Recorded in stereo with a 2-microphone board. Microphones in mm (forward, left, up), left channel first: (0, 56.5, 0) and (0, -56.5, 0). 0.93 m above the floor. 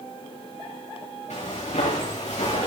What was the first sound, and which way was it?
Footsteps, 80° left.